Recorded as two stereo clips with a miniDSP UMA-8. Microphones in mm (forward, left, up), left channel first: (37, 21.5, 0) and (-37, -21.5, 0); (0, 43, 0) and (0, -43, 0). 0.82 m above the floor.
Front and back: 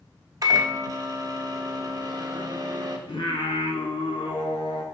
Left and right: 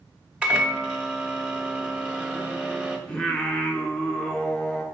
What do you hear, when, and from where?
0.4 s a microwave: 165° right, 0.9 m
3.1 s singing: 10° left, 1.0 m